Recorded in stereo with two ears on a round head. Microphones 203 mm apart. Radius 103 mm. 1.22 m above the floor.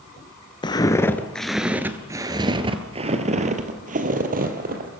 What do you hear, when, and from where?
0.6 s footsteps: 20° left (ahead or behind), 1.2 m; by 5.0 s 45° right (ahead or behind), 2.5 m